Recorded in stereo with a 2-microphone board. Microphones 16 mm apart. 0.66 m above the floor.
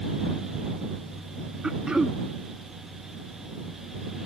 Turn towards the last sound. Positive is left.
turn(degrees=-65)  # may be behind; listen again after turning